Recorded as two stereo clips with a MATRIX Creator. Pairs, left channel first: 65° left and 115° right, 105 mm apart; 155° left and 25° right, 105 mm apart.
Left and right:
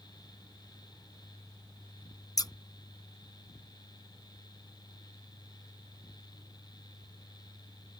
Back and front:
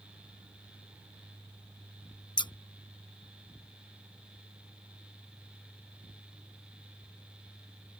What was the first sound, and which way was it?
Scissors, 120° left.